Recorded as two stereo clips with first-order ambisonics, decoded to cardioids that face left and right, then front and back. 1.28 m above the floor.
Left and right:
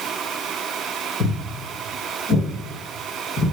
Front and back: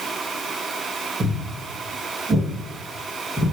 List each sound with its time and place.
1.2 s footsteps: 115° left, 1.5 m; by 3.5 s 105° left, 2.5 m